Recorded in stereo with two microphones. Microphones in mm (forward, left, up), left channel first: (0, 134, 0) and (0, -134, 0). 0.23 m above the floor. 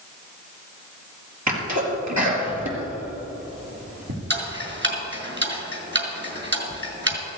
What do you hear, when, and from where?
1.5 s a sneeze: 75° right (ahead or behind), 5 m
4.3 s ticking: 40° right (ahead or behind), 2 m